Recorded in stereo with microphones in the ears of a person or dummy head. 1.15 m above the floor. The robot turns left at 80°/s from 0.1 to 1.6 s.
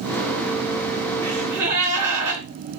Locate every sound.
1.2 s a gasp: 20° left, 3 m; by 2.4 s 15° right, 3 m